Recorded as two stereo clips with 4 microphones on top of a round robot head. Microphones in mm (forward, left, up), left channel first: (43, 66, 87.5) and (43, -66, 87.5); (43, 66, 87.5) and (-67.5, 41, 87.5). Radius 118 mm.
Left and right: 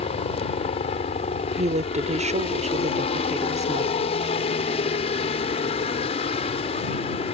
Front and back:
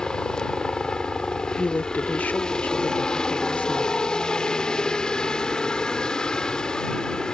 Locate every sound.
0.0 s a helicopter: 95° left
1.6 s a woman speaking: 65° right